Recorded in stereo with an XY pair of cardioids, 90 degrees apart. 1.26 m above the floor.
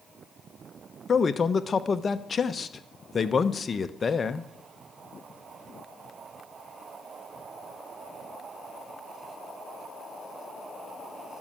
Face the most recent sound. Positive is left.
turn(degrees=40)